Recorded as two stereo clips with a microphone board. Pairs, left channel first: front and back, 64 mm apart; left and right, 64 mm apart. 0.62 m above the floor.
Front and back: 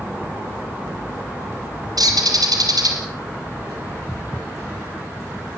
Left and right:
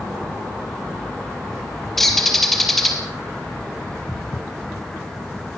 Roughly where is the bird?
Behind.